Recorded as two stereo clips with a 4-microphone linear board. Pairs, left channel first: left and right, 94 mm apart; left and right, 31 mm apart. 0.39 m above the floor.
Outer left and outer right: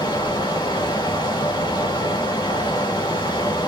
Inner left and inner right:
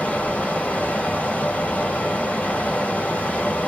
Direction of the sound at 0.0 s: 60° left (ahead or behind).